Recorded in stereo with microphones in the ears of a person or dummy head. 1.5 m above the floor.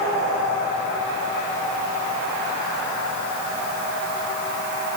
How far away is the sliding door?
I don't hear a sliding door.